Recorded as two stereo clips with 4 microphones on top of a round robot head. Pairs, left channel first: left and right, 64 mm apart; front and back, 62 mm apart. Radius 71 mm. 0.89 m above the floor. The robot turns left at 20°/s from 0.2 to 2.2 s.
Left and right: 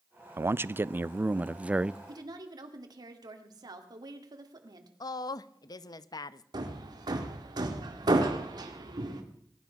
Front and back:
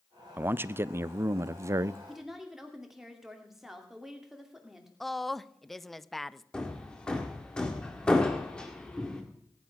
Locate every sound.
0.4 s a man speaking: 130° right, 0.5 m; by 2.0 s 160° right, 0.5 m
2.1 s a woman speaking: 95° right, 2.5 m
5.0 s a woman speaking: 85° left, 0.8 m
6.5 s hammering: 80° right, 1.9 m